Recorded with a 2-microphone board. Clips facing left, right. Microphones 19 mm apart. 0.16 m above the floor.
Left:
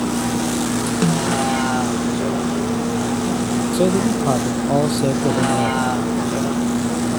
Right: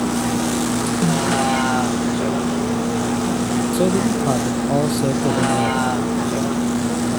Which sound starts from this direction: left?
A snare drum, at 1.0 s.